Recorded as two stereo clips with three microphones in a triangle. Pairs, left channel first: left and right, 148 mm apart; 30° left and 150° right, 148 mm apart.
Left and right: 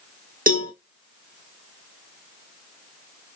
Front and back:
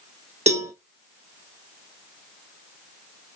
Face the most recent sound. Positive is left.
turn(degrees=-110)